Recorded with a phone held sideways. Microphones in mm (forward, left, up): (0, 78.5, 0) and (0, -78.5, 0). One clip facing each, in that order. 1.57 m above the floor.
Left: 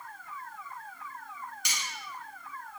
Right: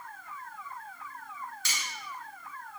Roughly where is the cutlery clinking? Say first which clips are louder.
Even; centre.